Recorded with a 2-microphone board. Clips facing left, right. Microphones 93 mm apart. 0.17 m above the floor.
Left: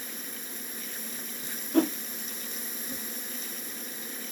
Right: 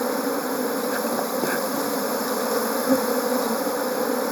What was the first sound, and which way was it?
An insect, 85° right.